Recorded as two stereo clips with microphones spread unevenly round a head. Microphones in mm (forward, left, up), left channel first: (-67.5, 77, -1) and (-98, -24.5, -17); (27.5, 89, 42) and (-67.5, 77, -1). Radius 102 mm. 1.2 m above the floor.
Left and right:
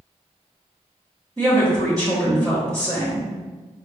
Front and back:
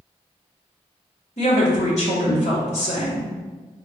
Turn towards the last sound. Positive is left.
turn(degrees=-40)